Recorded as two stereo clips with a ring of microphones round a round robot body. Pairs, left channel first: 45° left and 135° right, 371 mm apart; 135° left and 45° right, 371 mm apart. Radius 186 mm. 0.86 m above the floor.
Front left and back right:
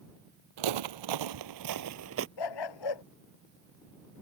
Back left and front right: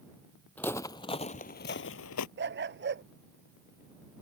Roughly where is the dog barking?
Ahead.